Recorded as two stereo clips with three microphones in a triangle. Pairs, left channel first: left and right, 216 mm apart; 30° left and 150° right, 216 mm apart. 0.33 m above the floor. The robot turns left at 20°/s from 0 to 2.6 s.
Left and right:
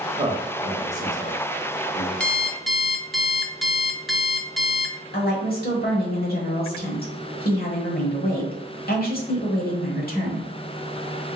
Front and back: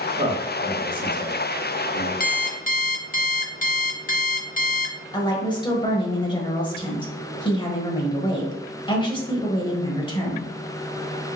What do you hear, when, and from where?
0.2 s a man speaking: 140° right, 1.3 m; by 2.1 s straight behind, 1.3 m
2.2 s an alarm clock: 5° left, 0.6 m; by 5.0 s straight ahead, 0.6 m
5.1 s a woman speaking: 85° left, 1.1 m